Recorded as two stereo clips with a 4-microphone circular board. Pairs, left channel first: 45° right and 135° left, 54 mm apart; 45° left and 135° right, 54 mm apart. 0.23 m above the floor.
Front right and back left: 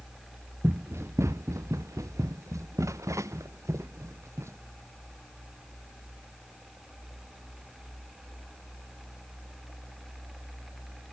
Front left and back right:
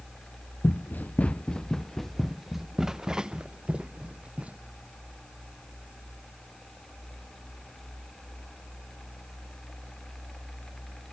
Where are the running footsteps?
90° left; by 4.6 s 160° left.